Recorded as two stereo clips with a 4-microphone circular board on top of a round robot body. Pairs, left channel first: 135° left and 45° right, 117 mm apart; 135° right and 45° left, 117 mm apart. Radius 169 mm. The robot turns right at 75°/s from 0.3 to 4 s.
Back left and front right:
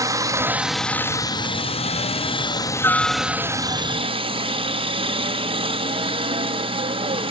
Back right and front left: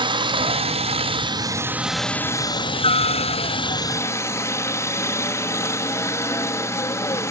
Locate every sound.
0.0 s a helicopter: 10° left; by 7.3 s 70° right